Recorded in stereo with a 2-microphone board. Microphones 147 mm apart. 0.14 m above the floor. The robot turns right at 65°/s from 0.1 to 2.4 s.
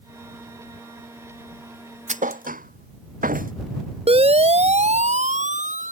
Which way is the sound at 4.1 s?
45° right (ahead or behind).